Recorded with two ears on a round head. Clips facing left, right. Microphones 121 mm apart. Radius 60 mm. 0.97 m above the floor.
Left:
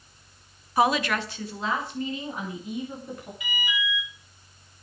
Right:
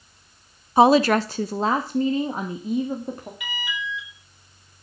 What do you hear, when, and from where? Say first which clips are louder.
0.8 s a woman speaking: right 8 dB; 20° right (ahead or behind), 0.6 m; by 3.3 s 30° right (ahead or behind), 2.5 m
3.4 s an alarm: left 2 dB; 50° right (ahead or behind), 4.5 m